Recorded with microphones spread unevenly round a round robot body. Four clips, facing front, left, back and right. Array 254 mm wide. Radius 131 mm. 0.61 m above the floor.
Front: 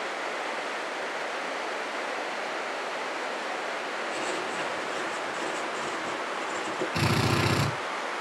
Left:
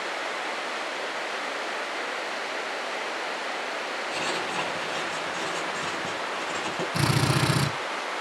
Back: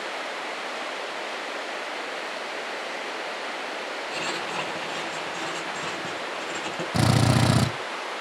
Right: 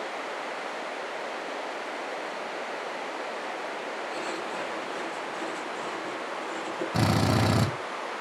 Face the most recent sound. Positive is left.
turn(degrees=-155)